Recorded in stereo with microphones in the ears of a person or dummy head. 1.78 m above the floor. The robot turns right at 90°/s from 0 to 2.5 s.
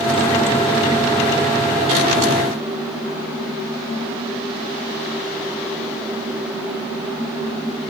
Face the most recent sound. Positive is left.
No sound to turn to.